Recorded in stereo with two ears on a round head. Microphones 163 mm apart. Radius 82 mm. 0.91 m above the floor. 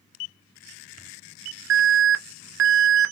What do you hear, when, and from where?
1.7 s an alarm: 75° right (ahead or behind), 0.5 m